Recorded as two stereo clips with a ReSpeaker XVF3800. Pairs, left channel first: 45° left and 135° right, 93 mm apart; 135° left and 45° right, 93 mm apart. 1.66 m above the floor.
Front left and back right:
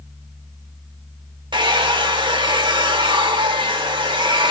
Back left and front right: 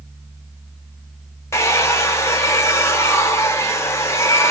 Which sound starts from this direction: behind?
A hair dryer, at 1.5 s.